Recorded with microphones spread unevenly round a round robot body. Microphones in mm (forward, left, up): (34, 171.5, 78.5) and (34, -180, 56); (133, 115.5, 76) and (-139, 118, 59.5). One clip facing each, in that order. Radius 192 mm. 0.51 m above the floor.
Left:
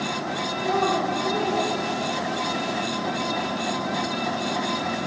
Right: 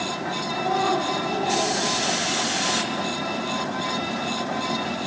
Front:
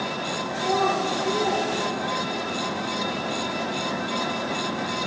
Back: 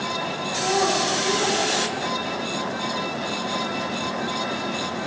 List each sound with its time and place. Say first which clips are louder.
0.5 s a child speaking: left 1 dB, back 1 dB; straight behind, 6 m; by 2.5 s 170° right, 7 m